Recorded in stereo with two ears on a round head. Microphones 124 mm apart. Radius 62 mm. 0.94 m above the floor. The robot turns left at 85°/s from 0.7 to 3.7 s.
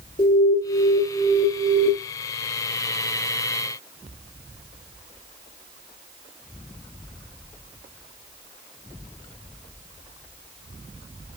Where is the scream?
No scream in this recording.